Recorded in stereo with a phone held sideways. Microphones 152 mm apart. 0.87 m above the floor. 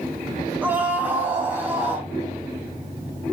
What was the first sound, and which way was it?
A scream, 10° right (ahead or behind).